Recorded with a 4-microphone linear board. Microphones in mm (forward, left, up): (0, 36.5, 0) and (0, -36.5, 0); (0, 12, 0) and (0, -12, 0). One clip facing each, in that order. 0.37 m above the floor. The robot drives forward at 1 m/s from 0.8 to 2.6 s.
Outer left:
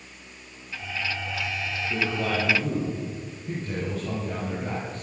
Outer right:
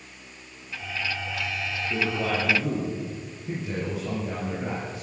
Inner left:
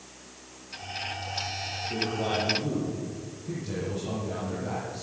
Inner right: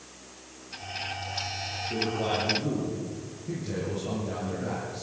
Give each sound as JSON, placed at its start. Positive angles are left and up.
{"t": 1.9, "sound": "a man speaking", "side_deg": -5, "distance_m": 9.0}